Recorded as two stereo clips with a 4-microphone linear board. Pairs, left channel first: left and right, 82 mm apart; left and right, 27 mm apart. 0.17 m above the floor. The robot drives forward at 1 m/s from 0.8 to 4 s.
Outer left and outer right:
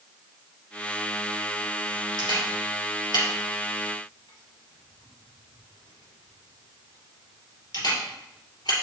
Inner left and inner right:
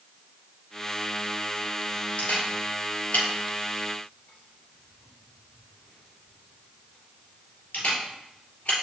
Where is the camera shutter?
65° left (ahead or behind), 4.5 m.